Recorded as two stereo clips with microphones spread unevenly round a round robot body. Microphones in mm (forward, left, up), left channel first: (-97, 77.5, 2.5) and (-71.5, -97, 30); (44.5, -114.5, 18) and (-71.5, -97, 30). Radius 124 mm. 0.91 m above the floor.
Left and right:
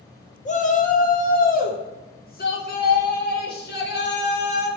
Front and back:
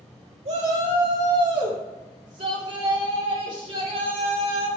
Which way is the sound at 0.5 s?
135° left.